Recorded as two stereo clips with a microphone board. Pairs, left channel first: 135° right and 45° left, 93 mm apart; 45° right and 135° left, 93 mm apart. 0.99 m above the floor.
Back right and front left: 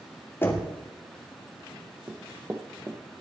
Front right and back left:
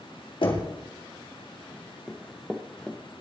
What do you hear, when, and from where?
0.4 s knocking: 70° right, 2.5 m
2.1 s running footsteps: 40° left, 1.0 m